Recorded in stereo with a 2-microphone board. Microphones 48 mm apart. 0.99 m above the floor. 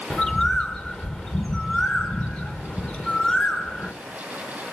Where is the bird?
20° left (ahead or behind), 1.2 m.